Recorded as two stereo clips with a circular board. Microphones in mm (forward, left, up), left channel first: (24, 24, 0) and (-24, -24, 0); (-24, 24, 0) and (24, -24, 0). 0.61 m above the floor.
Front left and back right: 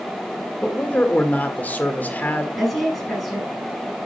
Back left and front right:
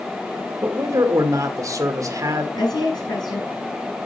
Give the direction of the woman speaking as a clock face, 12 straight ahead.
8 o'clock.